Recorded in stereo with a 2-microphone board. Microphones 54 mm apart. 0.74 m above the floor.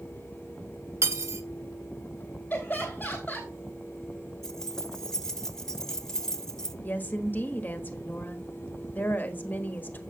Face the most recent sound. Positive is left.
turn(degrees=30)  # may be behind; listen again after turning